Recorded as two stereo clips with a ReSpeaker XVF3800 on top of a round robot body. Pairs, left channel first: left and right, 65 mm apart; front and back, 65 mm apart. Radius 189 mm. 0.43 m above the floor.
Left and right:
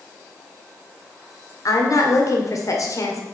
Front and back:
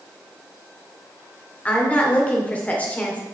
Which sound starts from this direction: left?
A woman speaking, at 1.6 s.